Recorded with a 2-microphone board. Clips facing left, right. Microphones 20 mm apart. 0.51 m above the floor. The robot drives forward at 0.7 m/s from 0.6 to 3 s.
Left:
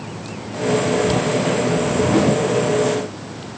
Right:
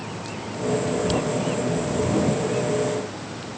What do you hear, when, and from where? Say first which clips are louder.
1.7 s a whoosh: left 6 dB; 70° left (ahead or behind), 0.8 m; by 2.5 s 45° left (ahead or behind), 1.1 m